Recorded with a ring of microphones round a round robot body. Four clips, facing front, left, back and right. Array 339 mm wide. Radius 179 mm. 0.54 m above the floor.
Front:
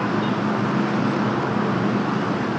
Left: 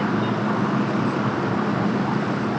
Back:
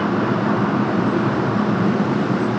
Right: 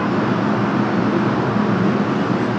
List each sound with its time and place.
Only background noise.